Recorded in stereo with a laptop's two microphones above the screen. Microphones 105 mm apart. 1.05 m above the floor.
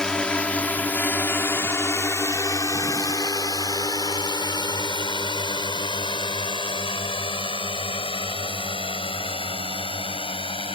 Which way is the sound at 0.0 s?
10° left (ahead or behind).